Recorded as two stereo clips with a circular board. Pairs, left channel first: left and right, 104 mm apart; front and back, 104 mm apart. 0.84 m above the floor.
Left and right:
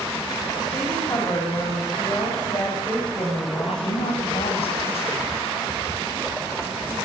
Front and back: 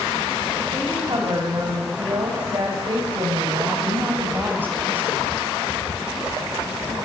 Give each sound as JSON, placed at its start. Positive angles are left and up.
{"t": 0.7, "sound": "a woman speaking", "azimuth_deg": 140, "distance_m": 5.5}
{"t": 3.7, "sound": "a woman speaking", "azimuth_deg": 110, "distance_m": 5.0}